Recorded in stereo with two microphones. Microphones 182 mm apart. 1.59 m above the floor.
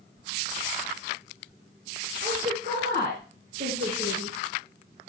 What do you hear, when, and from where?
2.2 s a woman speaking: 70° right (ahead or behind), 5.5 m; by 4.3 s 90° right, 6.5 m